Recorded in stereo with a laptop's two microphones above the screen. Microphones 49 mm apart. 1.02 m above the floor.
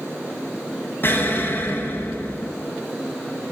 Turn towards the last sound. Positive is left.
turn(degrees=50)  # may be behind; listen again after turning